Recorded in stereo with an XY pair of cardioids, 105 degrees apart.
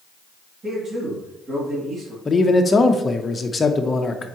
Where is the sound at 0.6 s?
40° right, 2.5 m.